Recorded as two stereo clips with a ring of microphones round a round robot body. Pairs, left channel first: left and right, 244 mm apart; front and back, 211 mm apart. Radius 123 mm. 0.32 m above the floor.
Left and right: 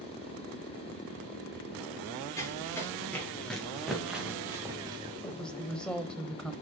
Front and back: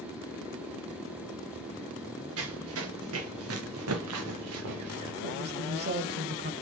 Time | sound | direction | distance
2.4 | running footsteps | 170° left | 4 m
5.2 | a woman speaking | 175° left | 1.4 m